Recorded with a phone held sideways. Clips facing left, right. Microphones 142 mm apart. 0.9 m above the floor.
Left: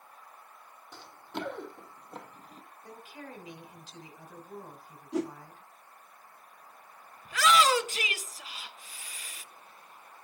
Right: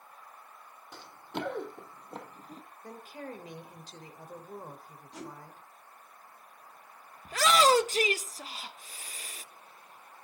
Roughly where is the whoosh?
Left.